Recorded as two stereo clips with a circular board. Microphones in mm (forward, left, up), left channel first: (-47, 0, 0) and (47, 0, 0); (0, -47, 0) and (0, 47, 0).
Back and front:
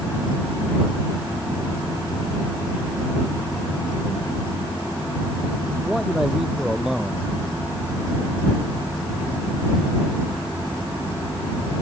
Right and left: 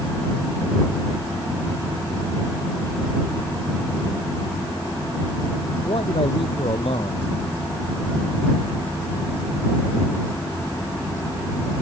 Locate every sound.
5.8 s a man speaking: 85° right